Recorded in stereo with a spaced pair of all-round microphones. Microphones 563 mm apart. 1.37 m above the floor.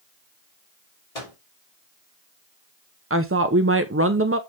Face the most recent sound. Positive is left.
turn(degrees=-25)  # may be behind; listen again after turning